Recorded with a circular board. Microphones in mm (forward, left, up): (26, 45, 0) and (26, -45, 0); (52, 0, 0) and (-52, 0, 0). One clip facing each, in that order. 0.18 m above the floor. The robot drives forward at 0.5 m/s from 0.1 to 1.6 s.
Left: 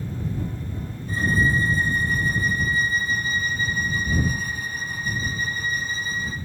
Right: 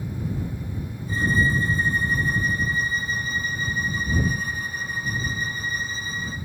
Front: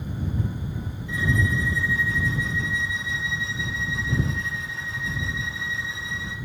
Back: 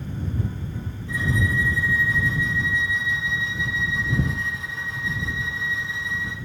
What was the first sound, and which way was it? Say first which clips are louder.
A violin: left 1 dB, even; 130° left.